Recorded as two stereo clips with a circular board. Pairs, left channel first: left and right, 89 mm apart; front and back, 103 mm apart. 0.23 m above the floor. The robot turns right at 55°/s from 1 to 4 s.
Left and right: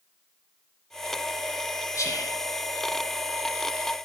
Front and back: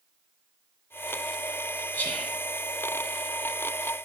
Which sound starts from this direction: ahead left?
Whispering, at 1.9 s.